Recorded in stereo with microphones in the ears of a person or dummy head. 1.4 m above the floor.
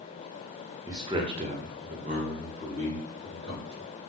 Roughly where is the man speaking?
Centre.